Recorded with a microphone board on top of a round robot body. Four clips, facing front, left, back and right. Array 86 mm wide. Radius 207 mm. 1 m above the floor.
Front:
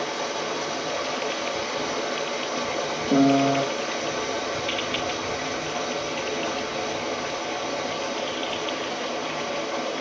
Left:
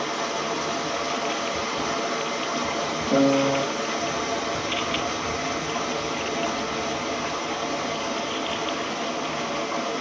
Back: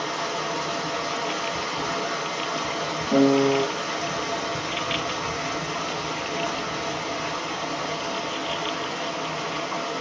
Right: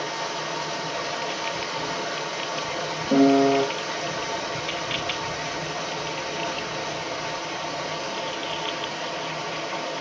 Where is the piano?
55° right, 0.9 m.